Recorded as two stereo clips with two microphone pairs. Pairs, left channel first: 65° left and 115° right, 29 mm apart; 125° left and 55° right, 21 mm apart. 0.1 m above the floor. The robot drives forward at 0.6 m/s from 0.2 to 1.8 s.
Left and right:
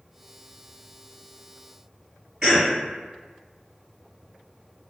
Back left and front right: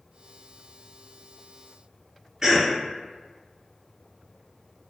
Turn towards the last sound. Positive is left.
turn(degrees=-95)